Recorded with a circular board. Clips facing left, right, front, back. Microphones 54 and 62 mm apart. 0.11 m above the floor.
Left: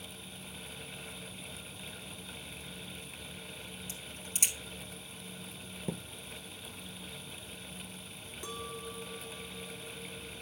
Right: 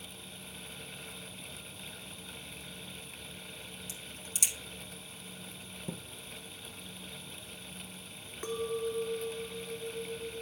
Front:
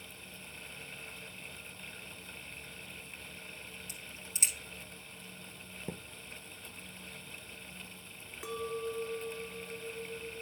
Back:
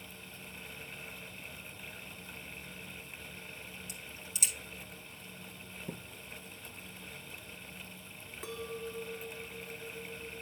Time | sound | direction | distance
3.9 | a crack | 45° left | 2.5 m
5.9 | a thud | 50° left | 1.3 m
8.4 | a clink | 80° right | 0.9 m